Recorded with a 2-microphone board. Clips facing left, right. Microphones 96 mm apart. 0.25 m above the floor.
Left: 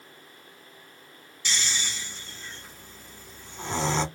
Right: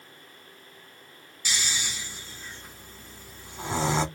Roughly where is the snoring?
Centre.